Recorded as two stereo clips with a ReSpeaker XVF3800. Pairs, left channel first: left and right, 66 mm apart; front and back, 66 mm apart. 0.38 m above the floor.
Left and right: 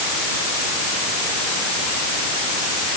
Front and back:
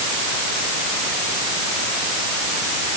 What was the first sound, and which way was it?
Only background noise.